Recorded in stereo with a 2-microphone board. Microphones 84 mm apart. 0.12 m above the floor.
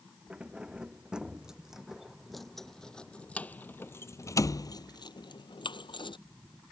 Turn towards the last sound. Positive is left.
turn(degrees=70)  # may be behind; listen again after turning